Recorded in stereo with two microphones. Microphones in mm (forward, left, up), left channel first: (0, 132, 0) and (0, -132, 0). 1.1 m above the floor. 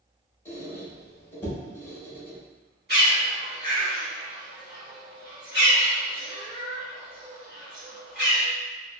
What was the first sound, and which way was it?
A squeak, 10° left (ahead or behind).